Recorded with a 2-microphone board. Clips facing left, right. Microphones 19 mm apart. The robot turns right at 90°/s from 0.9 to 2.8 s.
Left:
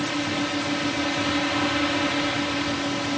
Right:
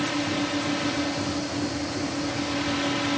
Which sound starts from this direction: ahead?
A drone, at 0.0 s.